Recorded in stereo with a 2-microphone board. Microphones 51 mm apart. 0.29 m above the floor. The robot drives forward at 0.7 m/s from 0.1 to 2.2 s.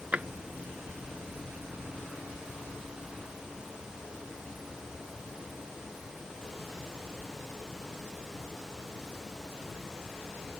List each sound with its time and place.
0.1 s a drawer: 30° right (ahead or behind); by 0.3 s 25° right (ahead or behind)